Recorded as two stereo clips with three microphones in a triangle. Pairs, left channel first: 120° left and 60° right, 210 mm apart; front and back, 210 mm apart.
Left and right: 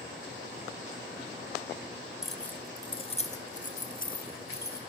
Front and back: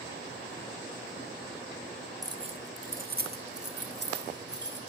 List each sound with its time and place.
2.2 s keys jangling: 145° right, 1.0 m; by 4.8 s 155° left, 3 m